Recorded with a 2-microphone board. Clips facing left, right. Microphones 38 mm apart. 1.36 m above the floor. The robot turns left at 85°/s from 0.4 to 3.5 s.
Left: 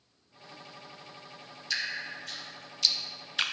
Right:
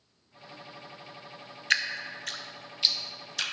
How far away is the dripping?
About 0.5 m.